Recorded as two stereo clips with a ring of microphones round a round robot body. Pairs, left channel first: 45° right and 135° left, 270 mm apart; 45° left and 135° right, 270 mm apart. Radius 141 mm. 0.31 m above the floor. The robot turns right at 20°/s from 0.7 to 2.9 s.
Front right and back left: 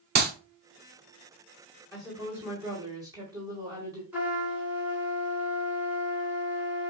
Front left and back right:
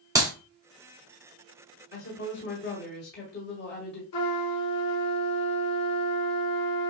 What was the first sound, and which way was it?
A clap, 155° left.